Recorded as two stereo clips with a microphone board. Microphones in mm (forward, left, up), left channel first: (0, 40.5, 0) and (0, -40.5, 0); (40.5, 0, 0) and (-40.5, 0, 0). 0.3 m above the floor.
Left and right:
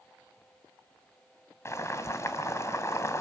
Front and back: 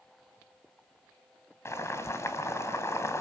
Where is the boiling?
45° left, 2.5 m.